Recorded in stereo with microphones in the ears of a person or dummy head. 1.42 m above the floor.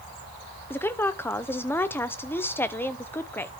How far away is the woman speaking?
About 0.7 m.